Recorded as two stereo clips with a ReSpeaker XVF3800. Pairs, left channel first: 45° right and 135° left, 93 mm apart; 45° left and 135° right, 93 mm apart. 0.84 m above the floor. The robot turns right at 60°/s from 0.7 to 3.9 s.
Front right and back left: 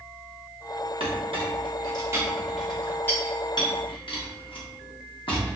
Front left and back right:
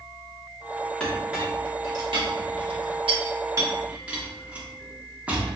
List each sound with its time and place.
1.0 s a clink: 125° left, 1.0 m; by 5.6 s 60° right, 1.0 m